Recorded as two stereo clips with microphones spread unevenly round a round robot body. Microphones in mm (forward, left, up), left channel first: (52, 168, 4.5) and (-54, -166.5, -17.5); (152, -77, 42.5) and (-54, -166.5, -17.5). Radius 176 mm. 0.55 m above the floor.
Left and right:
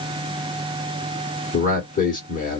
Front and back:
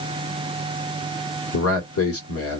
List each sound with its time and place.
1.5 s a man speaking: 5° left, 1.4 m